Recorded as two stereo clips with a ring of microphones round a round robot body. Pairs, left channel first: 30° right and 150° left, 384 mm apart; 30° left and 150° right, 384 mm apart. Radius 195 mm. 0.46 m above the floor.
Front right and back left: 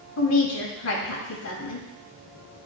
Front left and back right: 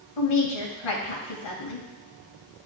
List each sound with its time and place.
0.2 s a woman speaking: 20° left, 2.5 m